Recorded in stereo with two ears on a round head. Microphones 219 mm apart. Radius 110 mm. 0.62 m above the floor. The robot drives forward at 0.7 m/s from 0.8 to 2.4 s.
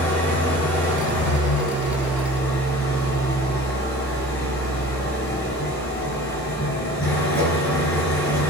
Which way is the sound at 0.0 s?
5° left (ahead or behind).